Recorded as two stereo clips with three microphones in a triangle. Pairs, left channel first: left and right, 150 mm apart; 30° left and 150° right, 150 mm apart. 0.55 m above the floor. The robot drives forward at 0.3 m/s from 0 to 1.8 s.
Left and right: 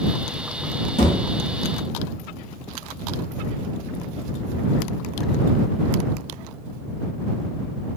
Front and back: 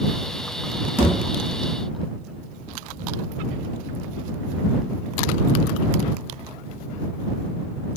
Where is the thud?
130° left, 1.1 m; by 1.2 s 135° left, 1.2 m.